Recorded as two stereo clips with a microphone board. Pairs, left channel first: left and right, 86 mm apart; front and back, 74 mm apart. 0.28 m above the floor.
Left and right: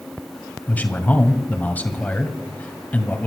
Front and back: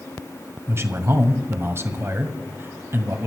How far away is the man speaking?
About 1.7 m.